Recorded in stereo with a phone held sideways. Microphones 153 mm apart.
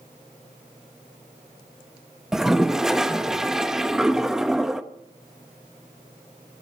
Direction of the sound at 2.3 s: Centre (ahead or behind).